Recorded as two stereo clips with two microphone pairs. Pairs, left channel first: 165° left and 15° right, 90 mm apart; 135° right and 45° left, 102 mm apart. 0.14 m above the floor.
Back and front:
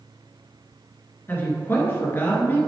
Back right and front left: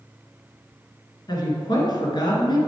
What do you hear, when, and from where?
1.3 s a woman speaking: 140° right, 1.9 m